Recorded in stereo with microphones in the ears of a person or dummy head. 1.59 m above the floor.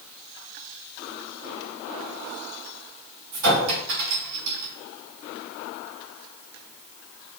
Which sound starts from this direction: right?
A clink, at 3.3 s.